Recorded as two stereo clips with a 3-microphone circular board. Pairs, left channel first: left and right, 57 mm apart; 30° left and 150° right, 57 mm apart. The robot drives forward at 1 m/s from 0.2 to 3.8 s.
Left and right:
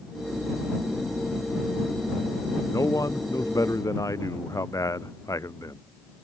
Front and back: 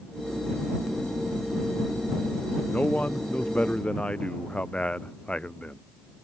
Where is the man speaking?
90° left; by 5.8 s 100° left.